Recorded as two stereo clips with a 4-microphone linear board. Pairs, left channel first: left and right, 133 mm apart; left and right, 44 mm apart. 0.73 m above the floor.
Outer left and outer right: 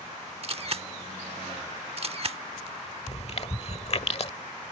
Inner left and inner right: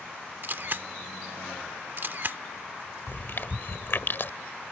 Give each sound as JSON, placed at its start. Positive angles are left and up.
{"t": 0.4, "sound": "a camera shutter", "side_deg": -45}
{"t": 3.1, "sound": "chewing", "side_deg": 50}